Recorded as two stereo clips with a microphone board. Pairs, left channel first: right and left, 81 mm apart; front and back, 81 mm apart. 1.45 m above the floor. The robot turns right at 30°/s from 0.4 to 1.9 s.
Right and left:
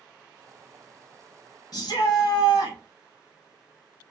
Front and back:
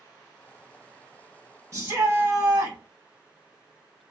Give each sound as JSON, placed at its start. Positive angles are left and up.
{"t": 1.7, "sound": "a shout", "azimuth_deg": -130, "distance_m": 1.4}